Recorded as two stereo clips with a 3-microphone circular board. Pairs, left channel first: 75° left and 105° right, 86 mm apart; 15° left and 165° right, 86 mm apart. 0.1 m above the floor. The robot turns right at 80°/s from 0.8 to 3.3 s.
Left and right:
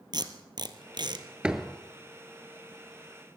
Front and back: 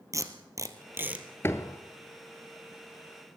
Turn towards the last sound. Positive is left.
turn(degrees=115)